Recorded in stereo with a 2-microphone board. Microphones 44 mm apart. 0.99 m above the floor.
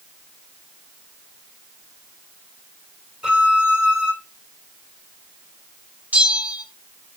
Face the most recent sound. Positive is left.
turn(degrees=-40)  # may be behind; listen again after turning